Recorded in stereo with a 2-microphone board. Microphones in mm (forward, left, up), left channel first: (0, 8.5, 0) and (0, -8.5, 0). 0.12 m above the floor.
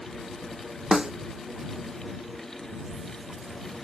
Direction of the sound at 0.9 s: 40° right (ahead or behind).